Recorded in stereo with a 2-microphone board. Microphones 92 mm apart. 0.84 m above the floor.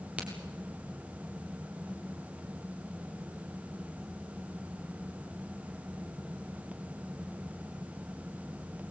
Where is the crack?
15° right (ahead or behind), 3.5 m.